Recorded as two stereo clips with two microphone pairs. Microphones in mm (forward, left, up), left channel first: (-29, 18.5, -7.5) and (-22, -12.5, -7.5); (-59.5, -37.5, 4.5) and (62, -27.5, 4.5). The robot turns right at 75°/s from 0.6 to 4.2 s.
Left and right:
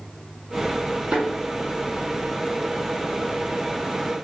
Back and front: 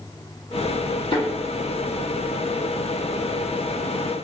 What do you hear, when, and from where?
1.1 s a thud: 130° right, 1.5 m; by 1.3 s 120° right, 1.5 m